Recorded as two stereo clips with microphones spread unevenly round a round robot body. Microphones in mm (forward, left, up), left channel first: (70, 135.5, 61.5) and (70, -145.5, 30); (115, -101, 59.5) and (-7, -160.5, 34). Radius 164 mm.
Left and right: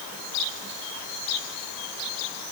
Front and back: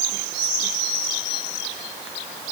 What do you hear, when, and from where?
Only background noise.